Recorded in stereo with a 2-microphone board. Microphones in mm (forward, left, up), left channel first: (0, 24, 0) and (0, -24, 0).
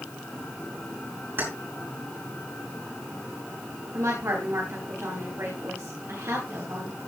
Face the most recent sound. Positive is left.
turn(degrees=-75)  # may be behind; listen again after turning